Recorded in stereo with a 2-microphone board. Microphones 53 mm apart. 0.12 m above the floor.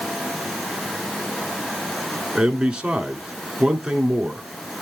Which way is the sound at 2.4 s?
15° right (ahead or behind).